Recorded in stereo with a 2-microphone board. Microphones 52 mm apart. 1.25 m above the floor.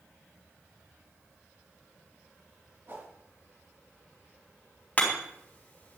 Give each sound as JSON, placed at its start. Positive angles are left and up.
{"t": 2.9, "sound": "a whoosh", "side_deg": -45, "distance_m": 4.5}
{"t": 5.0, "sound": "hammering", "side_deg": 30, "distance_m": 4.5}